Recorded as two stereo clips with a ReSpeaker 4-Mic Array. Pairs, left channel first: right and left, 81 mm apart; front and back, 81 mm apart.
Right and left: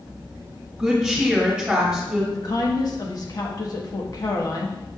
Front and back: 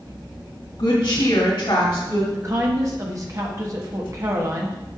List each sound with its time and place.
0.8 s a woman speaking: 10° left, 1.9 m
2.3 s a woman speaking: 130° right, 1.3 m